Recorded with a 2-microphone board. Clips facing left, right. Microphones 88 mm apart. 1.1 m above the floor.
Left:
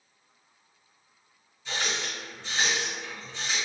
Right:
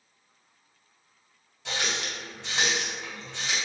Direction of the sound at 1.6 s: 75° right (ahead or behind).